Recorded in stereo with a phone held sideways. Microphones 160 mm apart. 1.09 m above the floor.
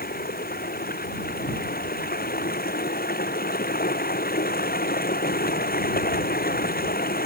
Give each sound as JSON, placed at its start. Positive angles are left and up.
{"t": 0.0, "sound": "running water", "side_deg": 70}